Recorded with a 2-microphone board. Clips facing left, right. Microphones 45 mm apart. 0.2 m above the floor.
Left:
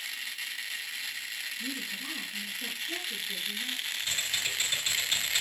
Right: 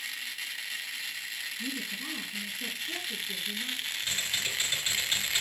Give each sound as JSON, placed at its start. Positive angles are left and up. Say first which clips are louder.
{"t": 1.6, "sound": "a woman speaking", "louder": "right 1 dB", "side_deg": -70, "distance_m": 6.5}
{"t": 4.0, "sound": "typing on a keyboard", "louder": "even", "side_deg": -20, "distance_m": 3.5}